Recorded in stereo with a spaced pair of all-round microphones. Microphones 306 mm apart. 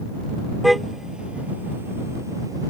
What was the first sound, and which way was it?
A car horn, centre (ahead or behind).